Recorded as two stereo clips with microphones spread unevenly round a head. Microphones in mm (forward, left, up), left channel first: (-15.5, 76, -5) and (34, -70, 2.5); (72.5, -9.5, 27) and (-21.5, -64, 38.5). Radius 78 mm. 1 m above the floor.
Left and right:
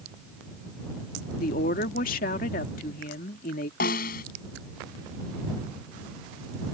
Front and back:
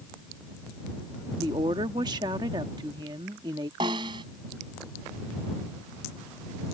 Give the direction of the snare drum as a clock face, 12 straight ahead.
7 o'clock.